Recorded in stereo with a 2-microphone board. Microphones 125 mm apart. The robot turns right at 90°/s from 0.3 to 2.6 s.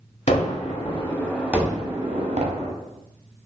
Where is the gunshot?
70° left (ahead or behind), 1.1 m; by 2.7 s 65° right (ahead or behind), 1.1 m.